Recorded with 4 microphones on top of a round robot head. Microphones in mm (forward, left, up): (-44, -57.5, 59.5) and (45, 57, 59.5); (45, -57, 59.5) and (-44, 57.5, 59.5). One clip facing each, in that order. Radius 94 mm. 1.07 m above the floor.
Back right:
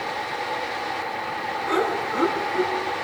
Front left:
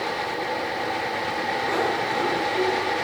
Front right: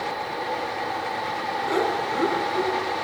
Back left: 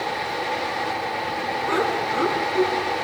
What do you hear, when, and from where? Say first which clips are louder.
1.7 s laughter: back right 3 dB, even; 105° right, 9 m